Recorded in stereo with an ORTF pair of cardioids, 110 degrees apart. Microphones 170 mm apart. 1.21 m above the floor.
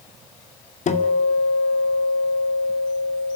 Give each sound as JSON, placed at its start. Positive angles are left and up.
{"t": 0.9, "sound": "a guitar", "azimuth_deg": 40, "distance_m": 2.5}